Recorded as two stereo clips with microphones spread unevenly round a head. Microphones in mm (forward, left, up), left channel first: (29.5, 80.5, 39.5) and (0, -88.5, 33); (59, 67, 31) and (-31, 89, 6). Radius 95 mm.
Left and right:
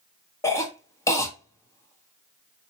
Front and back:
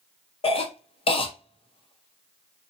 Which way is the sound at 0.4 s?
5° left.